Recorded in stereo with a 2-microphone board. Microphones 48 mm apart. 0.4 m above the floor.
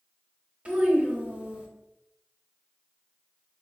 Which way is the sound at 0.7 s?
30° right (ahead or behind).